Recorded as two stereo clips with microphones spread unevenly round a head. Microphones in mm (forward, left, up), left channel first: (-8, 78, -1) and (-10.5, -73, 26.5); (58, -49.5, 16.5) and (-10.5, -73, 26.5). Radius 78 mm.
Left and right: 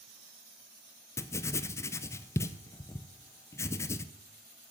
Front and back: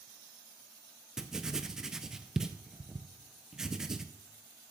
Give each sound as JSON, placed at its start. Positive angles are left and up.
{"t": 1.2, "sound": "writing", "azimuth_deg": 105, "distance_m": 0.5}